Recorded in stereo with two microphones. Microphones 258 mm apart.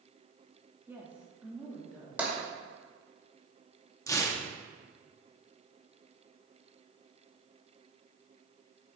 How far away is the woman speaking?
About 1.1 m.